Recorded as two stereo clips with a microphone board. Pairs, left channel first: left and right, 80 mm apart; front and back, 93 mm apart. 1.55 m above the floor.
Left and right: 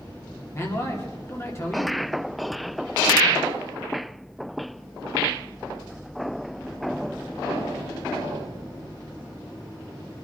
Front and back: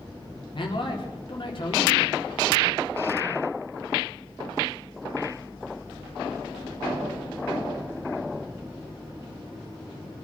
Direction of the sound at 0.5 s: 35° left.